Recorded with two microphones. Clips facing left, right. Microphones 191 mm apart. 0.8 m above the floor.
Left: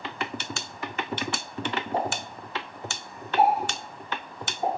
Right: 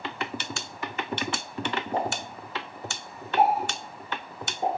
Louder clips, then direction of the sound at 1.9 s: Even; 60° right (ahead or behind).